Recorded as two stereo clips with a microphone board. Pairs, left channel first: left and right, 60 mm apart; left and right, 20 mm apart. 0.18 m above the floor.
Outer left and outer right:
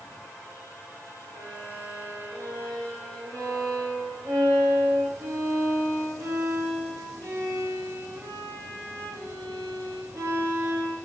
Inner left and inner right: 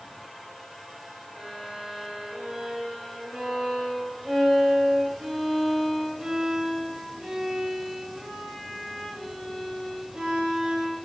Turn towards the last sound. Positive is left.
turn(degrees=-55)  # may be behind; listen again after turning